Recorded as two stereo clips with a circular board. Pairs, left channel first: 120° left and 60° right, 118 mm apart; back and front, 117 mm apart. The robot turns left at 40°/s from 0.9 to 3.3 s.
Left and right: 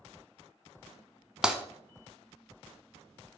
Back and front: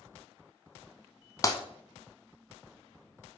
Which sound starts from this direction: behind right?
Breaking glass, at 1.4 s.